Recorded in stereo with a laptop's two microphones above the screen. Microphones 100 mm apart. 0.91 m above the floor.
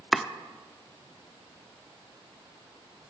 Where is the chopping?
Centre (ahead or behind), 0.6 m.